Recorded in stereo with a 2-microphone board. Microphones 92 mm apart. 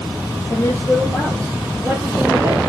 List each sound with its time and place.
0.5 s a woman speaking: 25° left (ahead or behind), 2.5 m; by 2.6 s 35° right (ahead or behind), 2.5 m